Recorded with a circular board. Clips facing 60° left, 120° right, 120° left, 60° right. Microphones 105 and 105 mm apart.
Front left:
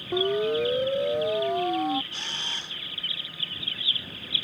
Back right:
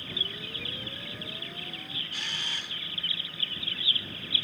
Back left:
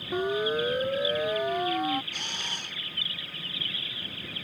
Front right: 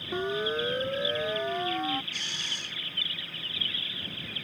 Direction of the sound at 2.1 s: 115° left.